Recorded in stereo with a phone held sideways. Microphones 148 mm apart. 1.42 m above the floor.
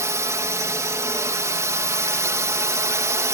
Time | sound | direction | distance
0.0 | a drone | 20° right (ahead or behind) | ?